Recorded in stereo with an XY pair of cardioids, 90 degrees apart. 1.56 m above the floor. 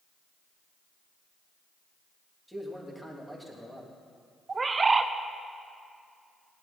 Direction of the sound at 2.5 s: Straight ahead.